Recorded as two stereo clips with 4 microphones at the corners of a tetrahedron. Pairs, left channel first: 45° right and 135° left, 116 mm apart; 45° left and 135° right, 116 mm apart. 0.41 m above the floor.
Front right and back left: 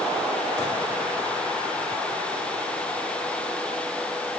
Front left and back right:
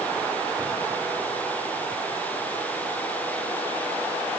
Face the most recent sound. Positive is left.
No sound to turn to.